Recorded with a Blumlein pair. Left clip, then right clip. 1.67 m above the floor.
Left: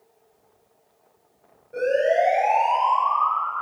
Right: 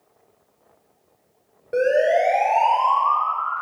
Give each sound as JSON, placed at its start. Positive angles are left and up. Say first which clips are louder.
{"t": 1.7, "sound": "a siren", "louder": "right 2 dB", "azimuth_deg": -35, "distance_m": 5.5}